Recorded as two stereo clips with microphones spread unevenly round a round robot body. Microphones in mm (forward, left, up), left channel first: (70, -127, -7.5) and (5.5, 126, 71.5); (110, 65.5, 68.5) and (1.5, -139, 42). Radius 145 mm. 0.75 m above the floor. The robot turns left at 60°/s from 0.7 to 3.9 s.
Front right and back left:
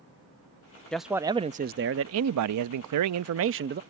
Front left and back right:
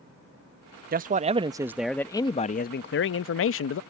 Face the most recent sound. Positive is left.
turn(degrees=35)